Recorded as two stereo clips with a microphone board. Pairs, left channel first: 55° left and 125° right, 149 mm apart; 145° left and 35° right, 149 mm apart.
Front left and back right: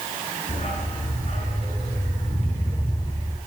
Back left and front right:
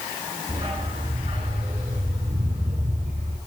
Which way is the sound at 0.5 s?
20° left.